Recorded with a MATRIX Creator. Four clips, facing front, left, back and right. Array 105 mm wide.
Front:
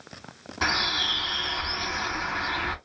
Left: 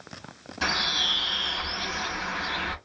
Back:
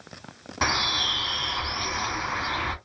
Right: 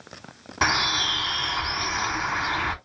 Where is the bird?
110° right, 1.3 m.